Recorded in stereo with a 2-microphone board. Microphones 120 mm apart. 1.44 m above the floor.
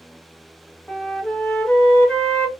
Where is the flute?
10° left (ahead or behind), 0.6 m.